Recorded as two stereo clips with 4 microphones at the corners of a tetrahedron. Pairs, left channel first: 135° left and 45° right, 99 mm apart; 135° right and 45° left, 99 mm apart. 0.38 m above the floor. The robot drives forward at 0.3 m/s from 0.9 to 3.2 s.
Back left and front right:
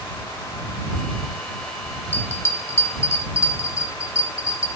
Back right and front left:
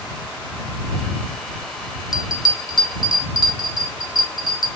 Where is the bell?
165° right, 1.1 m; by 4.7 s 170° right, 1.3 m.